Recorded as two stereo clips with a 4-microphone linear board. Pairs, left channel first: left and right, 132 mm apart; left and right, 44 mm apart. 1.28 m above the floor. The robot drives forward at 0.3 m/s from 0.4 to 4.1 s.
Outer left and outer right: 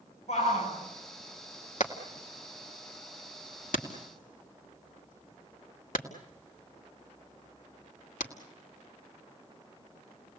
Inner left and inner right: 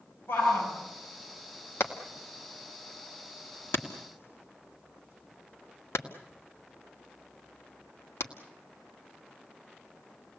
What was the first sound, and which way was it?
A shout, 55° left (ahead or behind).